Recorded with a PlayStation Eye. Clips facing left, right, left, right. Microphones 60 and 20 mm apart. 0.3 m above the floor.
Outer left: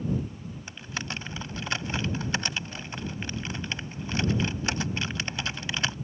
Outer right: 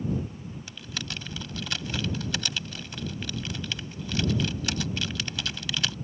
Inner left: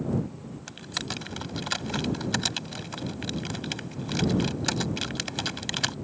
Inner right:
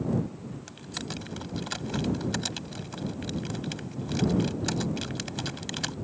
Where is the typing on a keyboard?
30° left (ahead or behind).